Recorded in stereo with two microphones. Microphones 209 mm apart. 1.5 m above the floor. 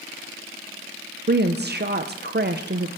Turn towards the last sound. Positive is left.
turn(degrees=-50)  # may be behind; listen again after turning